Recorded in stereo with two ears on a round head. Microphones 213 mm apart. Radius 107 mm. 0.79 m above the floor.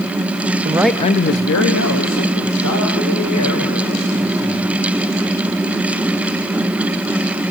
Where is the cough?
No cough in this recording.